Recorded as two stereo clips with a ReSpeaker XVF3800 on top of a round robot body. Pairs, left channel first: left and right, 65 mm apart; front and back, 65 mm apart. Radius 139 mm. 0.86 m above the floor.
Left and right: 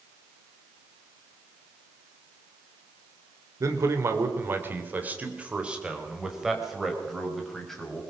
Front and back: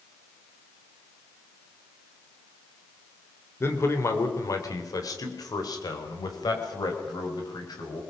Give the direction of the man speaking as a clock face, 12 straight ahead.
2 o'clock.